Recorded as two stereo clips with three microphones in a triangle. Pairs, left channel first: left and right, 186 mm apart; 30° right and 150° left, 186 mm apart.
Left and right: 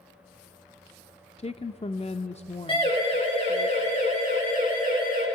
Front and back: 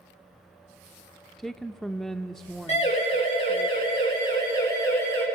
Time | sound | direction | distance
1.4 | a woman speaking | 60° left | 0.8 m
2.7 | a siren | 25° left | 9 m